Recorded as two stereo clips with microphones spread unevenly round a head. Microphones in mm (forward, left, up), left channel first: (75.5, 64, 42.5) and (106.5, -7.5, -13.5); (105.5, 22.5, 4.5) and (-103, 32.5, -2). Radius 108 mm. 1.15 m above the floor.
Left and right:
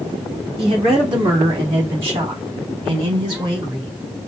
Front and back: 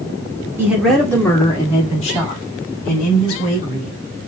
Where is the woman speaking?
105° right, 1.3 m; by 4.0 s 50° right, 4 m.